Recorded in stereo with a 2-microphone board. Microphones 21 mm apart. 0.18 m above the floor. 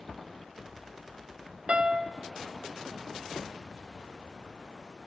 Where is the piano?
55° right (ahead or behind), 0.6 m.